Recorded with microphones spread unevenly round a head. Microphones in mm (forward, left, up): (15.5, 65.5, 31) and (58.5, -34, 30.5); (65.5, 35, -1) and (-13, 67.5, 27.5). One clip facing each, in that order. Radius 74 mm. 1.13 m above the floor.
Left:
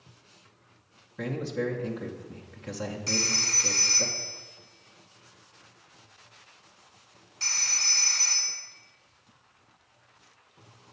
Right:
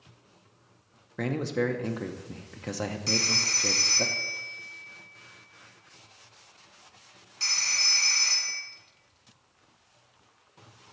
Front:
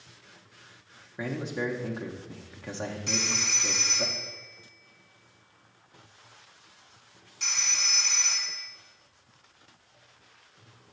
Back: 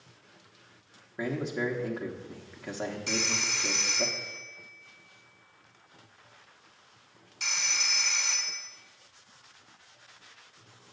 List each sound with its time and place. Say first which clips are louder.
1.2 s a man speaking: right 2 dB, back 1 dB; 110° right, 0.6 m
3.1 s a phone ringing: right 1 dB, even; 140° right, 0.8 m